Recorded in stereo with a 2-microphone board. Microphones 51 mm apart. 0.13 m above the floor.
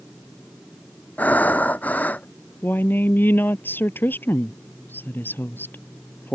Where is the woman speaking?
40° left (ahead or behind).